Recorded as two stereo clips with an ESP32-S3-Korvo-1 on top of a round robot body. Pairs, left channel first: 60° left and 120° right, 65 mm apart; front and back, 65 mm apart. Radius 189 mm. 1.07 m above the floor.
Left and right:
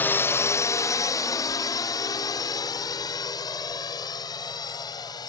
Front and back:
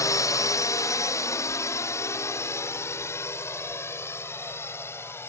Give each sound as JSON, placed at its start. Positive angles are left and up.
{"t": 0.0, "sound": "a drone", "azimuth_deg": 5}